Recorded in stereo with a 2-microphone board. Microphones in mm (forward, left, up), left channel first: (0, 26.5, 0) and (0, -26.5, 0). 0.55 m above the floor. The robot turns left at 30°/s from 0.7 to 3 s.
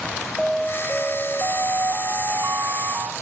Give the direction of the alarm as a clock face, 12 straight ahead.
12 o'clock.